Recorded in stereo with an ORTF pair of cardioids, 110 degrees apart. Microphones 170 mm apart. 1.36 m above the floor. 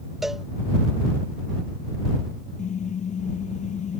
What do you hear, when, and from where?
0.2 s a cowbell: straight ahead
2.6 s a car horn: 45° left